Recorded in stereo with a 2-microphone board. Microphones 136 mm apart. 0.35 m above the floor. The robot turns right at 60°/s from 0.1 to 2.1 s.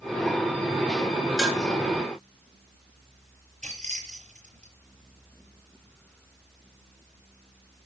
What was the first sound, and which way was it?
Dishes clattering, 5° left (ahead or behind).